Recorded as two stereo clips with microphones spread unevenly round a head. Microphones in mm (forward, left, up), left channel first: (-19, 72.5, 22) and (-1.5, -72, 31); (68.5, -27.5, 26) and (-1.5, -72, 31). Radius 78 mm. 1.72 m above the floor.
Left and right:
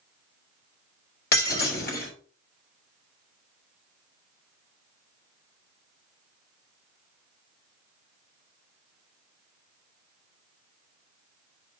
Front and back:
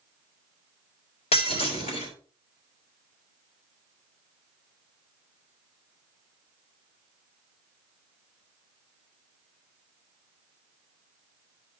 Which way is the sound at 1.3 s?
65° left.